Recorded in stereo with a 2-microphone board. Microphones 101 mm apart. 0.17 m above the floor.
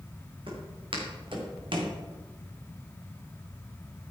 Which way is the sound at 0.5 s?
60° right (ahead or behind).